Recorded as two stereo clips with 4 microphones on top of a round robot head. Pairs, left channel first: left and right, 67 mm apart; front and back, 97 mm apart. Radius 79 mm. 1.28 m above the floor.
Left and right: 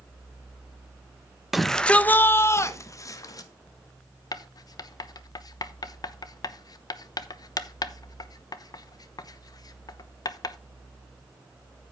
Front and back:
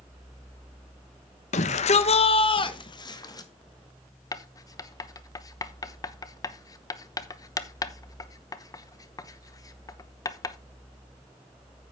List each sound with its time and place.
1.5 s a shout: 5° right, 1.1 m; by 3.5 s 55° left, 2 m
4.3 s writing: 60° left, 0.8 m